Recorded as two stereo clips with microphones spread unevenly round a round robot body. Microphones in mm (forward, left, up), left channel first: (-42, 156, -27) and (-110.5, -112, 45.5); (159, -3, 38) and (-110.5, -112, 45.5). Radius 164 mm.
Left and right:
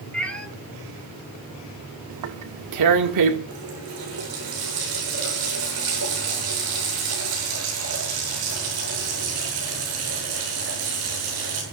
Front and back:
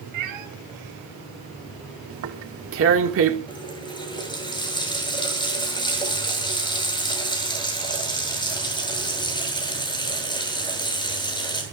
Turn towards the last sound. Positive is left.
turn(degrees=-55)